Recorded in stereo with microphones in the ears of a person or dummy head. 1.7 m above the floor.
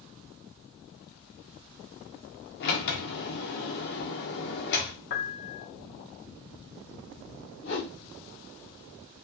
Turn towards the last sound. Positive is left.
turn(degrees=65)  # may be behind; listen again after turning